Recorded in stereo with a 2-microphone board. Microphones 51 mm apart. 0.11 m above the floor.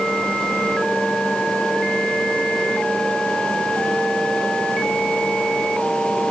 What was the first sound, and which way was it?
Only background noise.